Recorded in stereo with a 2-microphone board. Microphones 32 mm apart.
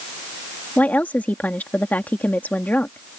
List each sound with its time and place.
0.8 s a woman speaking: 65° left (ahead or behind)